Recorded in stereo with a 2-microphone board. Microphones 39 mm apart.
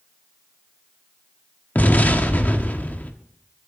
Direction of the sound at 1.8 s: 50° left (ahead or behind).